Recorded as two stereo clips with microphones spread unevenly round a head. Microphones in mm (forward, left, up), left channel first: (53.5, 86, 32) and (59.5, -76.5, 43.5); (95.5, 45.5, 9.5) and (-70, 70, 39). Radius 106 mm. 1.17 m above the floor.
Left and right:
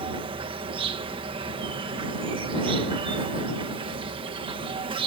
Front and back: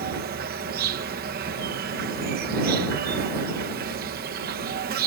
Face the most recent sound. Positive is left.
turn(degrees=-150)